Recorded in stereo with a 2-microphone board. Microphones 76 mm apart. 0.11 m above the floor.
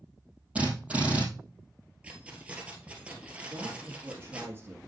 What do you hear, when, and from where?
0.6 s a drill: 15° right (ahead or behind), 3 m
2.0 s keys jangling: 15° right (ahead or behind), 1.9 m
3.5 s a man speaking: 30° right (ahead or behind), 2 m